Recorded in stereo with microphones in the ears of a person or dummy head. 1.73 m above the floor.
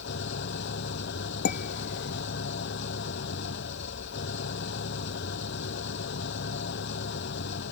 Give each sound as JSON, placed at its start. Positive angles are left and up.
{"t": 0.0, "sound": "an engine running", "side_deg": 60}
{"t": 1.4, "sound": "dishes clattering", "side_deg": 55}